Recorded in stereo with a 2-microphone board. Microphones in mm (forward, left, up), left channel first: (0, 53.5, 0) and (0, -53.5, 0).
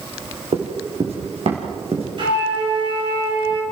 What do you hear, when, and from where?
0.5 s running footsteps: 70° right (ahead or behind), 4.5 m; by 2.1 s 60° right (ahead or behind), 5.5 m
2.2 s a flute: 45° right (ahead or behind), 7 m